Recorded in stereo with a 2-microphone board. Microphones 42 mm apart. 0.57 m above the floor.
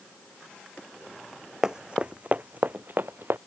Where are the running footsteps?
15° right (ahead or behind); by 3.4 s 55° right (ahead or behind).